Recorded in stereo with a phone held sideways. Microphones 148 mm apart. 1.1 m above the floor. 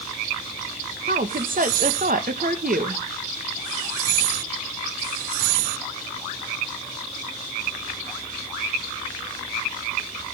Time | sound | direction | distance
1.1 | a woman speaking | 70° right (ahead or behind) | 1.1 m